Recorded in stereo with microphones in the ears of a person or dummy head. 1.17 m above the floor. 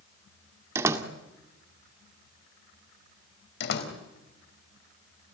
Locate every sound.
0.8 s a door slam: 20° right (ahead or behind), 1.7 m
3.6 s a door slam: 60° left (ahead or behind), 3.5 m